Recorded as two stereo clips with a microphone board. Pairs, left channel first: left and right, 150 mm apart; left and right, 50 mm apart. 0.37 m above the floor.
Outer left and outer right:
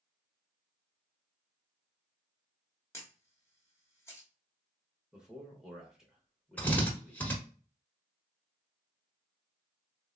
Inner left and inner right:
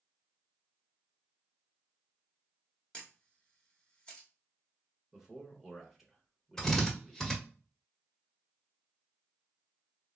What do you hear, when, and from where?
2.9 s a camera shutter: 20° left (ahead or behind), 1.1 m
5.1 s a man speaking: 5° right (ahead or behind), 1.0 m
6.6 s a drill: 10° left (ahead or behind), 1.3 m